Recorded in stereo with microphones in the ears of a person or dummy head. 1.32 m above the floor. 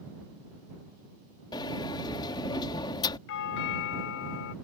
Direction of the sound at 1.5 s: 25° left (ahead or behind).